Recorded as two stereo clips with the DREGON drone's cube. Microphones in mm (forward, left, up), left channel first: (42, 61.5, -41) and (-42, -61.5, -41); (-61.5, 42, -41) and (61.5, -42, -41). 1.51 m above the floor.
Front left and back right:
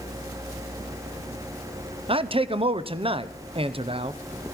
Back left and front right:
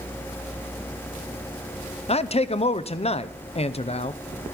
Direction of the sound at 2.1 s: 175° right.